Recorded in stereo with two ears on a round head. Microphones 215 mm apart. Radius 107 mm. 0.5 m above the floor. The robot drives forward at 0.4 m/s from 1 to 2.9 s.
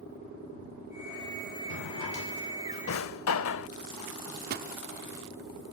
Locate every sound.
1.7 s a drawer: 70° left (ahead or behind); by 3.7 s 55° left (ahead or behind)
4.1 s a microwave: 40° right (ahead or behind)